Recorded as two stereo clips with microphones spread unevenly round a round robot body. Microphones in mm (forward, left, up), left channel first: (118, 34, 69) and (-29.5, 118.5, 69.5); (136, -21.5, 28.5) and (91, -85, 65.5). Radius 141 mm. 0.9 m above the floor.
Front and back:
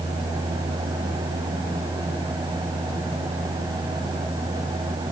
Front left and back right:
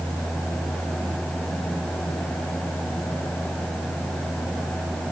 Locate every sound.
Only background noise.